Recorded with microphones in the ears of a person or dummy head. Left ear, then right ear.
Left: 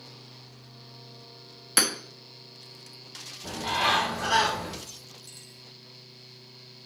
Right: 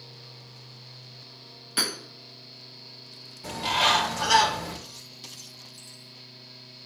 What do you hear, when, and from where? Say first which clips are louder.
1.8 s hammering: left 2 dB; 30° left (ahead or behind), 1.7 m
3.4 s a bird: right 3 dB; 45° right (ahead or behind), 1.9 m